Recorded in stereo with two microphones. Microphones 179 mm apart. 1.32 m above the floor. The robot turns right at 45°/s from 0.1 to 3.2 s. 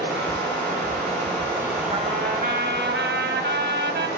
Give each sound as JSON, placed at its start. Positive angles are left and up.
{"t": 0.0, "sound": "running water", "azimuth_deg": -85, "distance_m": 6.5}
{"t": 1.9, "sound": "a trumpet", "azimuth_deg": -130, "distance_m": 1.4}